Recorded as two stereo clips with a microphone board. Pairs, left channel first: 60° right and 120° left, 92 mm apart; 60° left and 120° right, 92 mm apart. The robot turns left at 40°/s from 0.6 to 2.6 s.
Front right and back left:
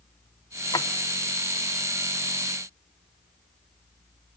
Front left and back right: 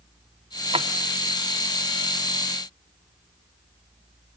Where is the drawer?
105° right, 0.7 m; by 0.9 s 110° right, 0.7 m.